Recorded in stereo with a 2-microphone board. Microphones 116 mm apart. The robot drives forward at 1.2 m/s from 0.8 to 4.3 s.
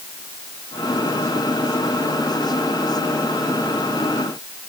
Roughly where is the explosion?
No explosion in this recording.